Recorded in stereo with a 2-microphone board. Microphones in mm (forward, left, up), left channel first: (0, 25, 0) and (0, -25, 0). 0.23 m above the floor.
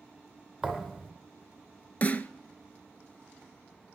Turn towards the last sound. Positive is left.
turn(degrees=35)  # may be behind; listen again after turning